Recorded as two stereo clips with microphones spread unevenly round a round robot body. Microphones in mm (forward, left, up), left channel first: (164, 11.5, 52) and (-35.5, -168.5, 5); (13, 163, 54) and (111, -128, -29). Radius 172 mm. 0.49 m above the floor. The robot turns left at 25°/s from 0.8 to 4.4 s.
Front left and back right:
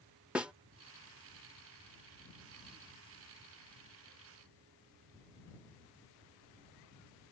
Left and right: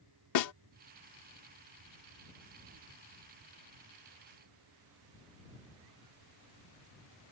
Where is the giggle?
No giggle in this recording.